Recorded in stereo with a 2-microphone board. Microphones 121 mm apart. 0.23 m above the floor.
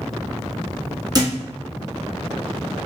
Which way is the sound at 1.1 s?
35° right (ahead or behind).